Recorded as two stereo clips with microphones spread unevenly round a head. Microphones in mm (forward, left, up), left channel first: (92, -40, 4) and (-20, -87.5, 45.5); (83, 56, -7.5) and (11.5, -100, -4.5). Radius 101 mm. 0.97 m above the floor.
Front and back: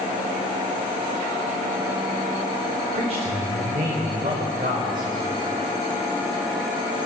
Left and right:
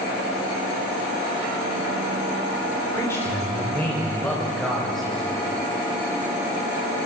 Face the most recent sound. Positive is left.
turn(degrees=155)